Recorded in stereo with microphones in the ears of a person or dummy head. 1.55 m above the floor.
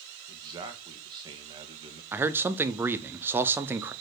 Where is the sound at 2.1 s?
10° right (ahead or behind), 0.6 m.